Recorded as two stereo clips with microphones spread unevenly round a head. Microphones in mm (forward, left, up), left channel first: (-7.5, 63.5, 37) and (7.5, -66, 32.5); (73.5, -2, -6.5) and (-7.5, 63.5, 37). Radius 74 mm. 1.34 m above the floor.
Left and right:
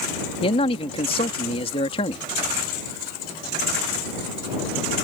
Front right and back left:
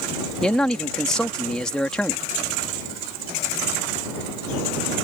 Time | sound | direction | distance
0.4 | a man speaking | 45° left | ?